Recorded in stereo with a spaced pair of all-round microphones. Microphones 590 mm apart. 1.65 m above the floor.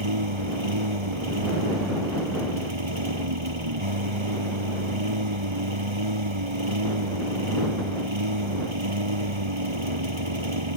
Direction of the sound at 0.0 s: 55° right (ahead or behind).